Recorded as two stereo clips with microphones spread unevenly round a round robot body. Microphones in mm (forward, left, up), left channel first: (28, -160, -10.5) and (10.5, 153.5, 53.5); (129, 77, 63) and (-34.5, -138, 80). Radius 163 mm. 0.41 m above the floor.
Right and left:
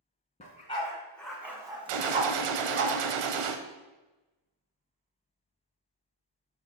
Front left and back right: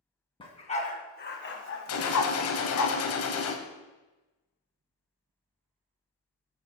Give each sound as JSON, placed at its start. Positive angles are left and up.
{"t": 0.4, "sound": "a dog barking", "azimuth_deg": -20, "distance_m": 2.0}
{"t": 1.9, "sound": "a gunshot", "azimuth_deg": 90, "distance_m": 0.9}